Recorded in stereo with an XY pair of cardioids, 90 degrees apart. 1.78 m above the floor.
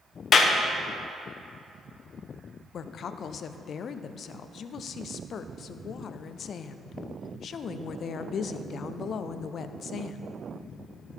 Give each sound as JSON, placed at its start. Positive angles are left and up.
{"t": 0.3, "sound": "a clap", "azimuth_deg": 55, "distance_m": 1.1}
{"t": 2.7, "sound": "a woman speaking", "azimuth_deg": 60, "distance_m": 0.5}